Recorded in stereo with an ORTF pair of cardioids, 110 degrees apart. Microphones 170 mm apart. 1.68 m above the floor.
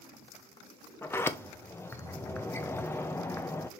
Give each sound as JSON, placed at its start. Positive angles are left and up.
{"t": 1.0, "sound": "a sliding door", "azimuth_deg": 15, "distance_m": 1.1}